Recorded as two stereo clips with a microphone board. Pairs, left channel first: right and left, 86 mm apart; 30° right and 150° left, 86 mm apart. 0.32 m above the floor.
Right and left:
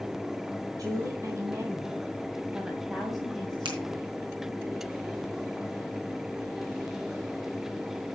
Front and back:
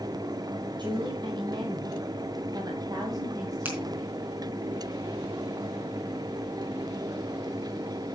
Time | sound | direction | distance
0.8 | a woman speaking | 130° left | 3.5 m
3.6 | a finger snap | 80° left | 4 m